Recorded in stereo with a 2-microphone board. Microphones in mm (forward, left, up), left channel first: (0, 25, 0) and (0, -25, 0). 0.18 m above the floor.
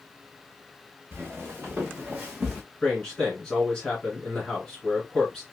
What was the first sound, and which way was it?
Footsteps, 40° right (ahead or behind).